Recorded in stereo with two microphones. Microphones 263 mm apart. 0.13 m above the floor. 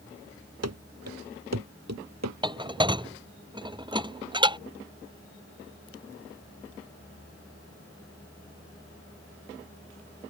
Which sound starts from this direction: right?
Running footsteps, at 0.6 s.